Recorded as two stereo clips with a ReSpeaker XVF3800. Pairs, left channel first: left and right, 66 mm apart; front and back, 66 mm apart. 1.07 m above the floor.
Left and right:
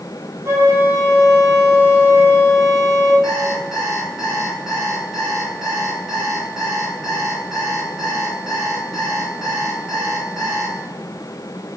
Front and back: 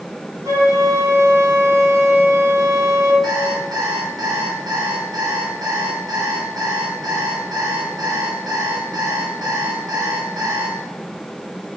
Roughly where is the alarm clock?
Behind.